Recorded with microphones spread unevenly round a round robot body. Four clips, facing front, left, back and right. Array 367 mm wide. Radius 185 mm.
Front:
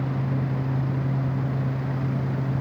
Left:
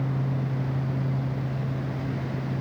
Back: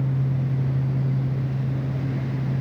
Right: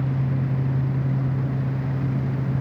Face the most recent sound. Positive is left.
No sound to turn to.